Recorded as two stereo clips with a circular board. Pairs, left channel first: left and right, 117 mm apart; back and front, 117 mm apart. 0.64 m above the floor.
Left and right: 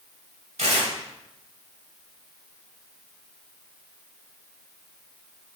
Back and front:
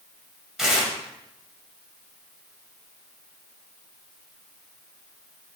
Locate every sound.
0.6 s tearing paper: 85° right, 1.8 m